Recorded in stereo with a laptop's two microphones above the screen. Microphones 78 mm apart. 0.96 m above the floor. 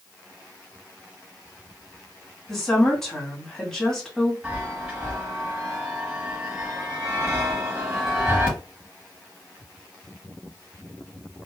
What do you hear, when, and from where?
2.5 s a woman speaking: 5° left (ahead or behind), 1.9 m
4.4 s a chime: 20° right (ahead or behind), 1.2 m